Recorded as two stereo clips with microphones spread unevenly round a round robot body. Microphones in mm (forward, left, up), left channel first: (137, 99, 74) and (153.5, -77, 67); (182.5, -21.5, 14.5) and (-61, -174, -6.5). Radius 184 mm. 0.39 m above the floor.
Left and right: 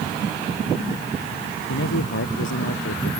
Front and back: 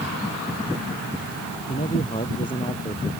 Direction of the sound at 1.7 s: 110° left.